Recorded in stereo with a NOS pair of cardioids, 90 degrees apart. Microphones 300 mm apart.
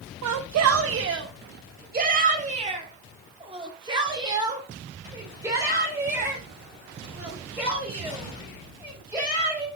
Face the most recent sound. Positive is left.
turn(degrees=-5)